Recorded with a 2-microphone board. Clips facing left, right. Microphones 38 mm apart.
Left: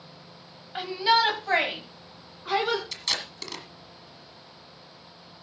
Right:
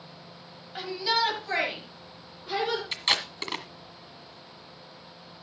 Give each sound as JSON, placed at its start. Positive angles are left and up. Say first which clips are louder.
{"t": 0.8, "sound": "a shout", "louder": "left 5 dB", "side_deg": 25, "distance_m": 1.7}
{"t": 2.9, "sound": "tape being pulled", "louder": "right 4 dB", "side_deg": -35, "distance_m": 1.4}